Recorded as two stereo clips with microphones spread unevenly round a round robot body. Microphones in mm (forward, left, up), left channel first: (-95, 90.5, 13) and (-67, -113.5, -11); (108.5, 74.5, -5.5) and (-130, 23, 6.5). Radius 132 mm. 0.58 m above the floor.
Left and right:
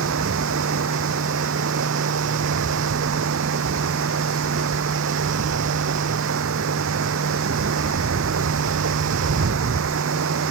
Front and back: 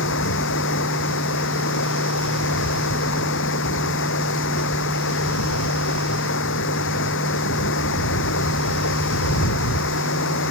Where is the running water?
35° right.